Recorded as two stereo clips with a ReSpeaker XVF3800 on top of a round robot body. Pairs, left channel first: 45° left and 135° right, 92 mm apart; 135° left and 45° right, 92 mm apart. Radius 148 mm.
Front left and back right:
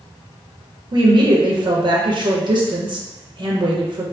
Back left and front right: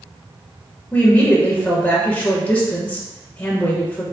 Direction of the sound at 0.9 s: 155° right.